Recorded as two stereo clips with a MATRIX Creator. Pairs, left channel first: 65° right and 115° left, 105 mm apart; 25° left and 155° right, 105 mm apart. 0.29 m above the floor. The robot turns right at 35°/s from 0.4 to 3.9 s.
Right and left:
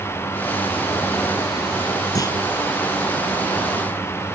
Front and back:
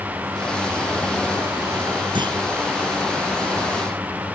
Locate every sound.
2.1 s a clunk: 120° right; by 2.4 s 115° right